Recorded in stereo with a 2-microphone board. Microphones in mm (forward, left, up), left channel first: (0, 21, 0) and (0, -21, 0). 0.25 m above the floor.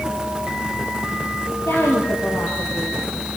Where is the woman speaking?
75° left (ahead or behind), 5.5 m.